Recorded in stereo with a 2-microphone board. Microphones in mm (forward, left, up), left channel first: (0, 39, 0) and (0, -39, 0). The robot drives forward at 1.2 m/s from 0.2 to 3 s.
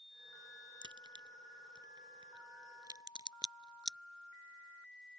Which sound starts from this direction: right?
A crack, at 0.8 s.